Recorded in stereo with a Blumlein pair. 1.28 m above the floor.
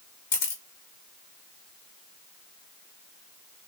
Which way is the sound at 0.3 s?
50° left.